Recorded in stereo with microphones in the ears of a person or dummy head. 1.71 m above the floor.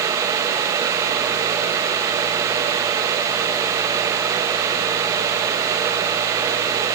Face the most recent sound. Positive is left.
No sound to turn to.